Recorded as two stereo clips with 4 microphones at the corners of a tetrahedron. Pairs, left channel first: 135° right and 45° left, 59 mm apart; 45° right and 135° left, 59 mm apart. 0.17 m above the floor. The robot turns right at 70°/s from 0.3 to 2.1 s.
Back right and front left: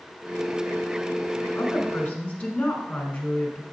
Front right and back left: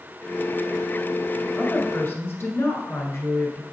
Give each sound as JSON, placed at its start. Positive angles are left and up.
{"t": 1.6, "sound": "a woman speaking", "azimuth_deg": -110, "distance_m": 1.6}